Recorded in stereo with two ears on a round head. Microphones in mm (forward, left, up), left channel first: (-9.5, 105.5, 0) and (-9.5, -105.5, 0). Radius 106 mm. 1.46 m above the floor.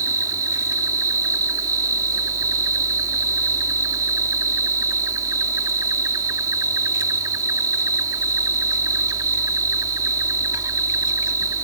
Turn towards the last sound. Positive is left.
turn(degrees=-15)  # may be behind; listen again after turning